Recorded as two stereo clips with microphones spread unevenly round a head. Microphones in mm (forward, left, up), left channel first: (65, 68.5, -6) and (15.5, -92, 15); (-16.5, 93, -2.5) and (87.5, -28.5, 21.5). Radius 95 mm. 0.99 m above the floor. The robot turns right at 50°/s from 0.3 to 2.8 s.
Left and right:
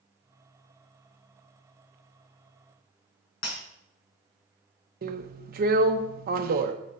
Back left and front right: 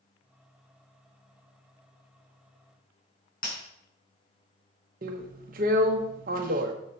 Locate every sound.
3.4 s breaking glass: 95° left, 5 m
5.0 s a drill: 85° right, 1.1 m